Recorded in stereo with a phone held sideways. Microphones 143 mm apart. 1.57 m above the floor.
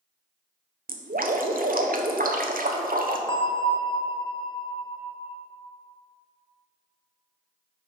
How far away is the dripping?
About 0.7 m.